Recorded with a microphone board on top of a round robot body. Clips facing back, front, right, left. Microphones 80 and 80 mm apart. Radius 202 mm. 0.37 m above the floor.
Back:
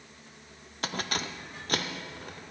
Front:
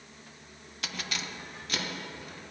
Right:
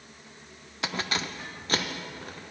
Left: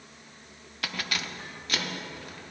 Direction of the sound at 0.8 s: 150° right.